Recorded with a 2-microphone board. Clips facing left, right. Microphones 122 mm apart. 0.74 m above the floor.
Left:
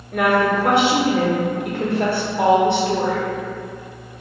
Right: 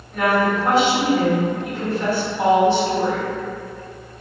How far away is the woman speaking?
About 0.9 m.